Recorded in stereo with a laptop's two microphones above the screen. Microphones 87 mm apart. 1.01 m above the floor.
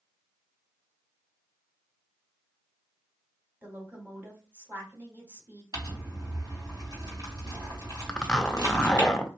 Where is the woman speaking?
20° right (ahead or behind), 1.7 m.